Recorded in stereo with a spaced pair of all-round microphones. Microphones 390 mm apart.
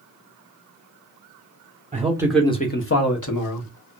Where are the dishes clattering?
I don't hear dishes clattering.